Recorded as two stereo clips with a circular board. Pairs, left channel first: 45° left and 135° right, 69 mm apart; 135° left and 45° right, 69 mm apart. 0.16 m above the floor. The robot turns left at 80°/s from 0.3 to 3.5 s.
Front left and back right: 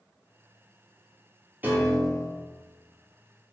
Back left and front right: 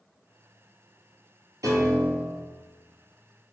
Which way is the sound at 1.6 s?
75° right.